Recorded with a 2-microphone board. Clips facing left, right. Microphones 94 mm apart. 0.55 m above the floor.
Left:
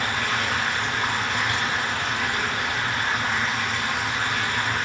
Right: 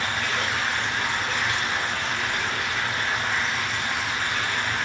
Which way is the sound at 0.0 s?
60° left (ahead or behind).